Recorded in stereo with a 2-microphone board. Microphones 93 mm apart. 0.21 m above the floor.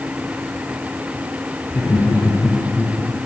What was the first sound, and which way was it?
Laughter, 25° left (ahead or behind).